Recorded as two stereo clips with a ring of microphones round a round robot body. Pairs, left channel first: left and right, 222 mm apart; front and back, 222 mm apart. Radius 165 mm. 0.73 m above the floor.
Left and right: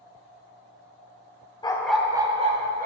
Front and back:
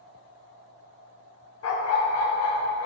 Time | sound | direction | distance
1.6 | a dog barking | 20° left | 0.7 m